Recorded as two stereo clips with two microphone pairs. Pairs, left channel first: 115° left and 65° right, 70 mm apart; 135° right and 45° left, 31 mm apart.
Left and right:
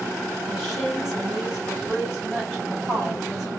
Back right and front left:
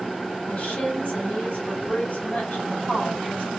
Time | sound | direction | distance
0.5 | a woman speaking | 150° right | 3.5 m